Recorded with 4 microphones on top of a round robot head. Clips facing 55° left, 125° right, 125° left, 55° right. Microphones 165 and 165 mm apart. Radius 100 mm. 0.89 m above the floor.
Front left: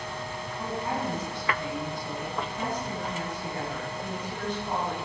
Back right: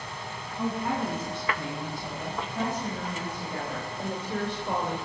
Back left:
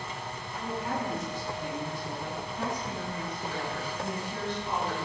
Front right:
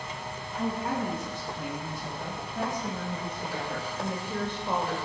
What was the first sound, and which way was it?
A woman speaking, 95° right.